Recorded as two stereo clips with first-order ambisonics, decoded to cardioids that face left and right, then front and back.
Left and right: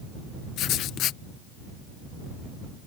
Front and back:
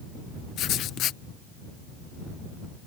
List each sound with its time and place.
0.6 s writing: 45° left